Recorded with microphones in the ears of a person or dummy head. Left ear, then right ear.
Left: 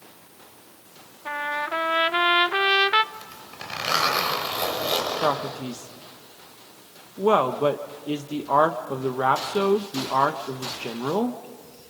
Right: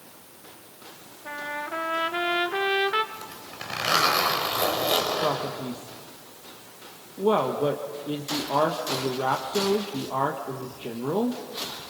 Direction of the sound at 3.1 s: 10° left (ahead or behind).